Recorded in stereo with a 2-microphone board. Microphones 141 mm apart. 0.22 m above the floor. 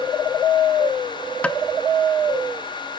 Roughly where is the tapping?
Centre.